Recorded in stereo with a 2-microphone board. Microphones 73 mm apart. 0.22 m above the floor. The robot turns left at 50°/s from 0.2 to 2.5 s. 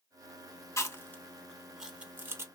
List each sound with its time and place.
0.8 s chewing: 40° left (ahead or behind), 0.7 m; by 2.5 s 40° right (ahead or behind), 0.7 m